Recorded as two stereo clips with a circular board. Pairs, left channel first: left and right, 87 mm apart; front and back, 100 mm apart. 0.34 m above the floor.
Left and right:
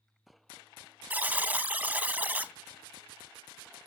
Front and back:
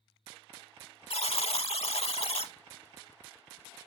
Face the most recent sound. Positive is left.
turn(degrees=-20)